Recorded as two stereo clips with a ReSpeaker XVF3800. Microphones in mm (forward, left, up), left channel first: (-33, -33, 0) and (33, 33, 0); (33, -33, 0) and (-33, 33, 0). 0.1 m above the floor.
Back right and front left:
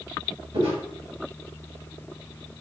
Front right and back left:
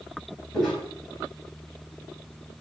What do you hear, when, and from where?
0.5 s footsteps: 40° left, 1.7 m